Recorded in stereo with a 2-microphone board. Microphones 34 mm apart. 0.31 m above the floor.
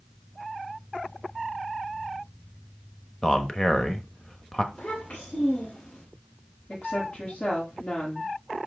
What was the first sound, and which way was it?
A man speaking, 20° left (ahead or behind).